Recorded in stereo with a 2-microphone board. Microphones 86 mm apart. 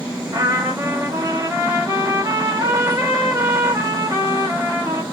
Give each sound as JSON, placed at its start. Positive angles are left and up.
{"t": 0.3, "sound": "a trumpet", "side_deg": -35, "distance_m": 1.3}